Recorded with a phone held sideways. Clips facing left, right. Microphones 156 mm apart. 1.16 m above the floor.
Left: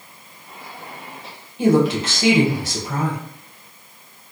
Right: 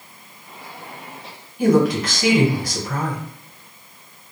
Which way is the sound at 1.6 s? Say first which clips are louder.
Even; 25° left (ahead or behind).